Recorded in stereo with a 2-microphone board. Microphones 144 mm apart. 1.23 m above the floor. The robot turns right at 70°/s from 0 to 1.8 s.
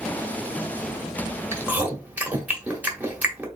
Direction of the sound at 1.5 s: 20° right (ahead or behind).